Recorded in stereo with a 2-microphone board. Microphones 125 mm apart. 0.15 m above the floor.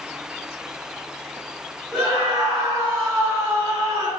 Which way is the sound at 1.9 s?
5° left (ahead or behind).